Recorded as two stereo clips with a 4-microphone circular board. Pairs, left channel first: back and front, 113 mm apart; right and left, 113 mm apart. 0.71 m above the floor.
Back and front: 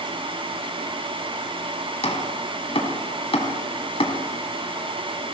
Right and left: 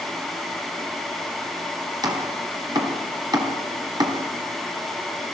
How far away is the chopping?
About 4 m.